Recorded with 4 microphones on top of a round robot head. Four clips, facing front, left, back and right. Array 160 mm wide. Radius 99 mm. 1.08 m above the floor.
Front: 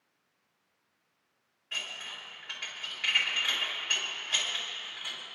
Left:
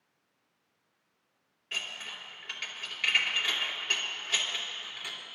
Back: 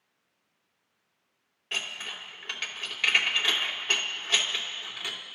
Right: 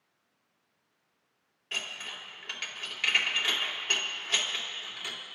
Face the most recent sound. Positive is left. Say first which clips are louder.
# right 1 dB, back 4 dB
turn(degrees=-165)